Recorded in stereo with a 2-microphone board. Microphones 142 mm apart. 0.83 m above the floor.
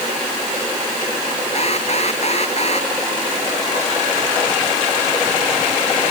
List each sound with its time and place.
1.6 s an alarm: 50° left (ahead or behind)